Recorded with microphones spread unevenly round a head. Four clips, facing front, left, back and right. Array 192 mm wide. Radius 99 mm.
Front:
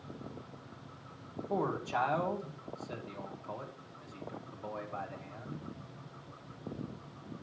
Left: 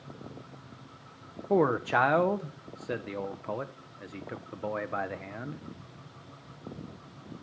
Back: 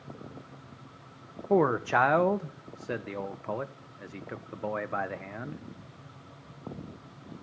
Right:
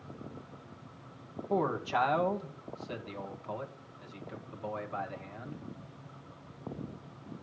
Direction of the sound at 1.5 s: 135° left.